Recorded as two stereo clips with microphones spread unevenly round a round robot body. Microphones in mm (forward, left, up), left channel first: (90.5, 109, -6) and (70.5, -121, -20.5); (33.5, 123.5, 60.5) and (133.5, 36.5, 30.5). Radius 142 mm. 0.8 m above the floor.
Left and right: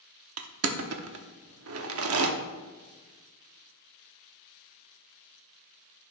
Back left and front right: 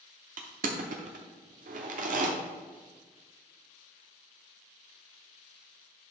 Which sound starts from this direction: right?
Crushing, at 0.4 s.